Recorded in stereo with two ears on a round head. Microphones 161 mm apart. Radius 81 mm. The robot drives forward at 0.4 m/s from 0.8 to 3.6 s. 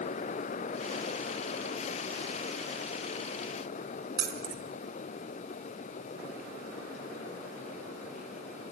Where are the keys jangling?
25° right (ahead or behind), 1.4 m.